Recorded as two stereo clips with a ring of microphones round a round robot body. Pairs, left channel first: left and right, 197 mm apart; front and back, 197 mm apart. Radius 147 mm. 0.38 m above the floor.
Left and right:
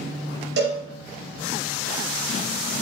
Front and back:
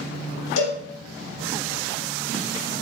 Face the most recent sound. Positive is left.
turn(degrees=-35)